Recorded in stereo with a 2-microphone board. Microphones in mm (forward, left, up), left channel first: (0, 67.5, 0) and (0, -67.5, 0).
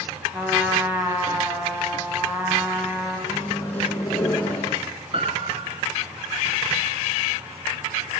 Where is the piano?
45° right (ahead or behind), 1.7 m.